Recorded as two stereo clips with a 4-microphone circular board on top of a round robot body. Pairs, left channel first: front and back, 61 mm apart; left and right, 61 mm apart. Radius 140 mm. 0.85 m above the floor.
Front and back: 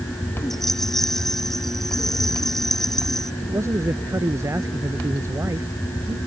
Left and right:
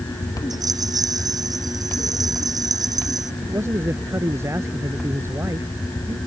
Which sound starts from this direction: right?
A rattle, at 0.5 s.